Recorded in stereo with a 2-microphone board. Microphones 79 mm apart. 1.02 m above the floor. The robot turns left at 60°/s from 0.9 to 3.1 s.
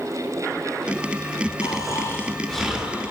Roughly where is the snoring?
Ahead left.